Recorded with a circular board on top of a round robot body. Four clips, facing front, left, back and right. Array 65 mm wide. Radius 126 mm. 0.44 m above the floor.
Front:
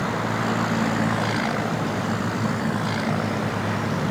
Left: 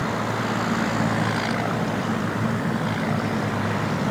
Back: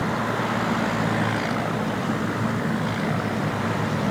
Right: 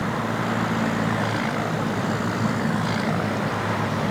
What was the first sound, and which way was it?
Only background noise.